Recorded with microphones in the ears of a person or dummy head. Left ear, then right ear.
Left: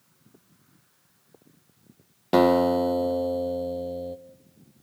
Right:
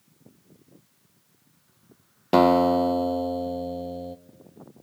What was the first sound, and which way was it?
A guitar, 10° right (ahead or behind).